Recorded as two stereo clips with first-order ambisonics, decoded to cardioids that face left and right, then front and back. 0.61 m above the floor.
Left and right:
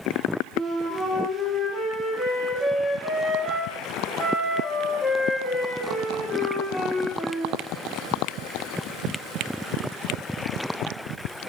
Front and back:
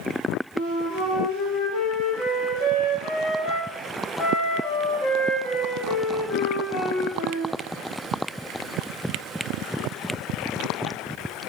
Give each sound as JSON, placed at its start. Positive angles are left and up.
{"t": 0.6, "sound": "a flute", "azimuth_deg": 0, "distance_m": 1.7}